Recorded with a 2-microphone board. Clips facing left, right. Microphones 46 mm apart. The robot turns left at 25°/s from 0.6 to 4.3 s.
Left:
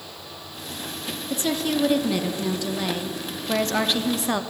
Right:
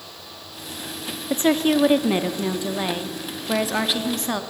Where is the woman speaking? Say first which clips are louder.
Right 6 dB; 115° right, 0.7 m; by 4.4 s 170° left, 0.7 m.